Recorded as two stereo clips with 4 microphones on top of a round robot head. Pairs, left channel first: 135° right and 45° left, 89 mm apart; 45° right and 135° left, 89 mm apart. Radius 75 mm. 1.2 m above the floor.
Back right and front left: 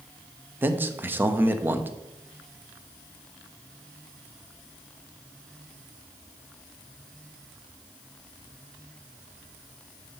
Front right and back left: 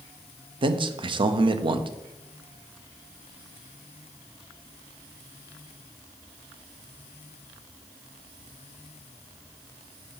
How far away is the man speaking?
About 0.7 m.